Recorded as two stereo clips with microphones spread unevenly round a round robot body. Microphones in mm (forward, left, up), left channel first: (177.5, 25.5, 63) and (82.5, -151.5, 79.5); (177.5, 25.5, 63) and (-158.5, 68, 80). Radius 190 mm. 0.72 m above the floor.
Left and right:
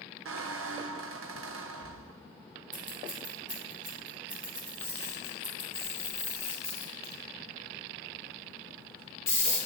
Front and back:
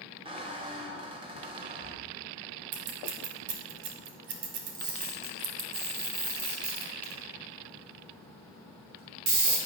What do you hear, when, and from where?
0.2 s a squeak: 110° right, 0.6 m
2.7 s scissors: 175° left, 1.5 m
4.7 s a camera shutter: 135° left, 3 m